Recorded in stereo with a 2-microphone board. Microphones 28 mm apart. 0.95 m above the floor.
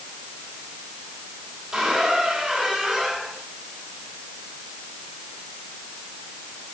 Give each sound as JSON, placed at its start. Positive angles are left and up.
{"t": 1.7, "sound": "a squeak", "side_deg": -25, "distance_m": 3.5}